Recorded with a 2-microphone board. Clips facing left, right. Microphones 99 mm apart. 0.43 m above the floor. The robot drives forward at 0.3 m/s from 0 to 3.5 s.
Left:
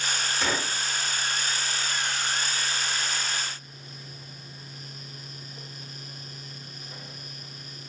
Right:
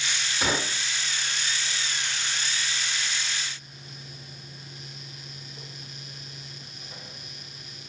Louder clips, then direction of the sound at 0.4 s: Right 3 dB; 5° right (ahead or behind).